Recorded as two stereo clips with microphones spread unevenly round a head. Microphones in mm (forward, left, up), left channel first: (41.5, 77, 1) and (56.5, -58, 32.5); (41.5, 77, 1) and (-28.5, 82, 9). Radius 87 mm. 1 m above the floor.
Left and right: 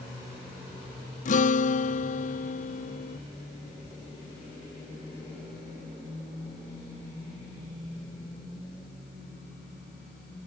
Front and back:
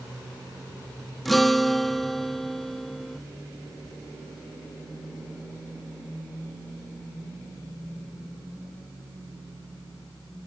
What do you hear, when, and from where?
1.2 s a guitar: 85° left